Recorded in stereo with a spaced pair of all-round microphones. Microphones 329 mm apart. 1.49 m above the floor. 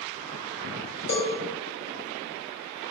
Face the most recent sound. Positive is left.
turn(degrees=50)  # may be behind; listen again after turning